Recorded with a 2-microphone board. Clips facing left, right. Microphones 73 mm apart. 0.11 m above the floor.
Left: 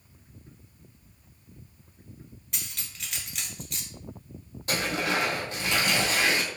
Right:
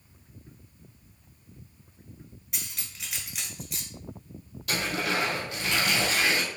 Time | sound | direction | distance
2.5 | cutlery clinking | 5° right (ahead or behind) | 1.2 m
4.7 | tearing paper | 30° left (ahead or behind) | 1.9 m